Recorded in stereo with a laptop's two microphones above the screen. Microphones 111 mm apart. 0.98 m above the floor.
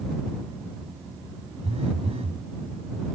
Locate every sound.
1.6 s a phone buzzing: 70° right (ahead or behind)